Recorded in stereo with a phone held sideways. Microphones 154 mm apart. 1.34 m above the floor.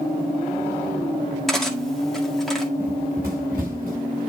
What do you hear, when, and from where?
1.5 s cutlery clinking: centre (ahead or behind), 1.8 m
2.8 s running footsteps: 65° right (ahead or behind), 6 m; by 4.2 s 55° right (ahead or behind), 5.5 m